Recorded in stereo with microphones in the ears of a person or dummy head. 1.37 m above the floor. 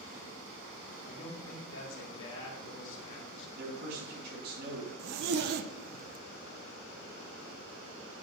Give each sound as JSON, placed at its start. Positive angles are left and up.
{"t": 1.1, "sound": "a man speaking", "side_deg": 75, "distance_m": 2.5}
{"t": 3.6, "sound": "a man speaking", "side_deg": -55, "distance_m": 3.0}
{"t": 5.0, "sound": "a zipper", "side_deg": -65, "distance_m": 0.6}